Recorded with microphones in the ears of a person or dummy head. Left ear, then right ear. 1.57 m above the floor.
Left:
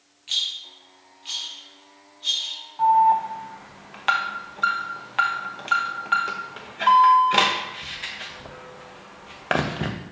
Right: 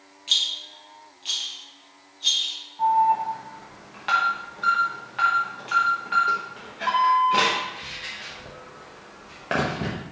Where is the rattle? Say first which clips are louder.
Right 3 dB; 15° right (ahead or behind), 1.7 m.